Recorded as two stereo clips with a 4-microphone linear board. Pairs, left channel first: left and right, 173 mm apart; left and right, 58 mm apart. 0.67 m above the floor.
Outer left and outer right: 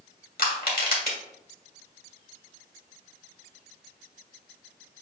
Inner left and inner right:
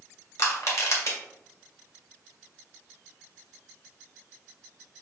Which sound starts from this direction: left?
Crushing, at 0.4 s.